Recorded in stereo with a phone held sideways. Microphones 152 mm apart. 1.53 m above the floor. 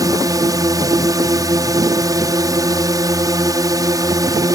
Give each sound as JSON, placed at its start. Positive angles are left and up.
{"t": 0.0, "sound": "a drone", "side_deg": -25}